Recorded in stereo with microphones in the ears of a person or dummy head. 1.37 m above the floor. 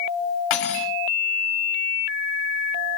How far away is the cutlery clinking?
About 1.2 m.